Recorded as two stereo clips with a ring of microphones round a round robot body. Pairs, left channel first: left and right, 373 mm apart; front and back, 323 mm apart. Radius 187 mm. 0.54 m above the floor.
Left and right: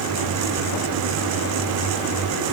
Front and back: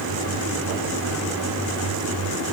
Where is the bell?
No bell in this recording.